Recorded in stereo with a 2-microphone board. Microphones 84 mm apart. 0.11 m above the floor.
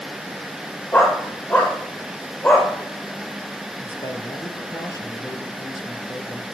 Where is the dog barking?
30° left (ahead or behind), 7 m.